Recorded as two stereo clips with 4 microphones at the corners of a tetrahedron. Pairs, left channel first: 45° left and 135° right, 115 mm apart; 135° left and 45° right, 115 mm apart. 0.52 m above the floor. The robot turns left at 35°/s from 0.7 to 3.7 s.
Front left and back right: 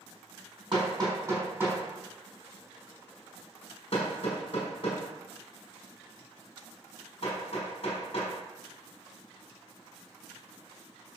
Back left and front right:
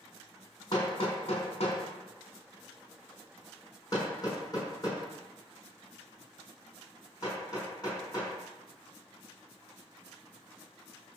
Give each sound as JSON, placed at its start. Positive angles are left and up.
{"t": 0.7, "sound": "hammering", "azimuth_deg": -175, "distance_m": 4.5}